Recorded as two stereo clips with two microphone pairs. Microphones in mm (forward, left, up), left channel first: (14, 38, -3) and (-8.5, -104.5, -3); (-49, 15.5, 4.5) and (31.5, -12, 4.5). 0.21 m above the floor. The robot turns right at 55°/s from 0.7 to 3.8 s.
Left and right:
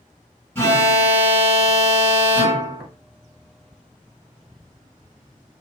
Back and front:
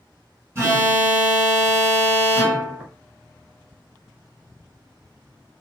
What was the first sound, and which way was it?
An alarm, 15° left.